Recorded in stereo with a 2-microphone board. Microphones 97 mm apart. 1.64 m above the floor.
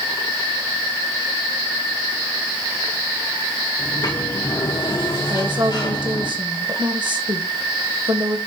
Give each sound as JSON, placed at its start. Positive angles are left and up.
{"t": 3.8, "sound": "a sliding door", "side_deg": 50, "distance_m": 1.8}
{"t": 5.3, "sound": "a woman speaking", "side_deg": -60, "distance_m": 1.9}